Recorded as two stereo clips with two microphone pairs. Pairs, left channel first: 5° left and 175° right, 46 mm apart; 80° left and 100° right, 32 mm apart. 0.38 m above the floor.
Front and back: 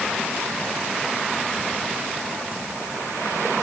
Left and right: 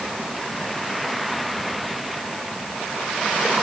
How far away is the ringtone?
I don't hear a ringtone.